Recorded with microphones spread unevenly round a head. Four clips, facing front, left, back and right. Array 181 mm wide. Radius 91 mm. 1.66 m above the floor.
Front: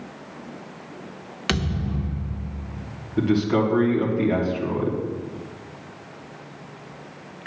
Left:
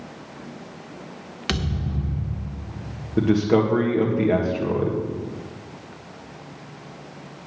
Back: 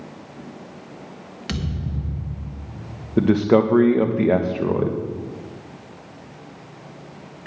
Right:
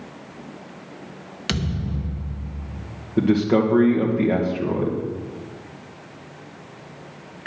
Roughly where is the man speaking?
Behind.